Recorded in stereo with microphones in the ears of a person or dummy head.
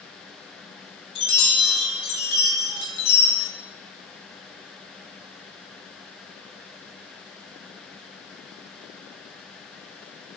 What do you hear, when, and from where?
1.1 s a chime: 35° left (ahead or behind), 3 m